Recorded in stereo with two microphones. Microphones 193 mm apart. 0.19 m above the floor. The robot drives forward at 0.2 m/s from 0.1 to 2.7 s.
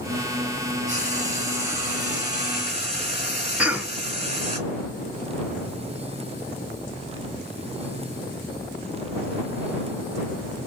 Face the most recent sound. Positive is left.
turn(degrees=-5)  # may be behind; listen again after turning